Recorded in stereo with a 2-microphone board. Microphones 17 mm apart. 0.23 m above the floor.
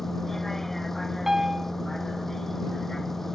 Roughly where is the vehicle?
Left.